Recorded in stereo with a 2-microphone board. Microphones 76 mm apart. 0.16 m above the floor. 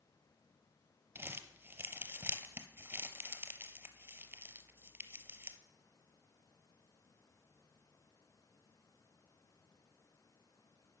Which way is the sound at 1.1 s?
30° right (ahead or behind).